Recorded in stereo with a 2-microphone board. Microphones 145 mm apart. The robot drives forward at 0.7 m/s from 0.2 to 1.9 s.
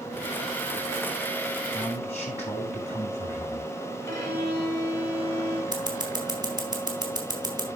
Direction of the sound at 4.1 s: 20° left (ahead or behind).